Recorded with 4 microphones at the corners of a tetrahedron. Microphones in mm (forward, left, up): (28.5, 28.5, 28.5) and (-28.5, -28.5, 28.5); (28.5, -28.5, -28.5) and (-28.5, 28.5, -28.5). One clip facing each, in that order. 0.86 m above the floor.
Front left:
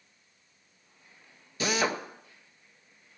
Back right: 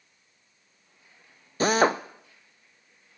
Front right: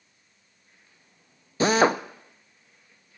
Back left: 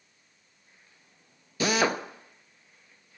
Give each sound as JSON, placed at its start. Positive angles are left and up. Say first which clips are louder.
{"t": 1.6, "sound": "a drill", "louder": "back right 7 dB, front right 5 dB", "azimuth_deg": -95, "distance_m": 0.6}